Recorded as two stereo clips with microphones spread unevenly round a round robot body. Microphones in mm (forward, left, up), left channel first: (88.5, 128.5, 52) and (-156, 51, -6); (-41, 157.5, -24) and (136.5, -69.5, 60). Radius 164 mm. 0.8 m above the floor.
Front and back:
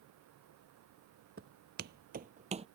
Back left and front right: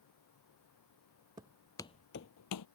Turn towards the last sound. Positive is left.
turn(degrees=125)